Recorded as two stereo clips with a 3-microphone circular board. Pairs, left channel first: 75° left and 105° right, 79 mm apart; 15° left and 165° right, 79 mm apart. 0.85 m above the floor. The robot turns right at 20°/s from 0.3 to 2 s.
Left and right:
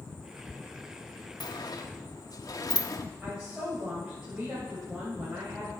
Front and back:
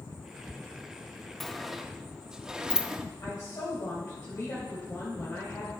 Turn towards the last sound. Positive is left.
turn(degrees=-25)